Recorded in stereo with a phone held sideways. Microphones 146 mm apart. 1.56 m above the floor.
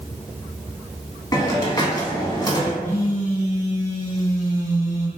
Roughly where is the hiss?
Left.